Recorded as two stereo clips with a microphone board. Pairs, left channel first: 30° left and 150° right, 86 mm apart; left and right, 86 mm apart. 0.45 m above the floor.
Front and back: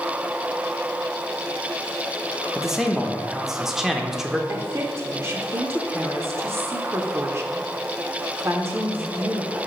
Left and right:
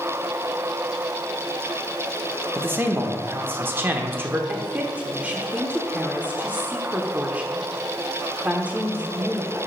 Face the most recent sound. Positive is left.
turn(degrees=-140)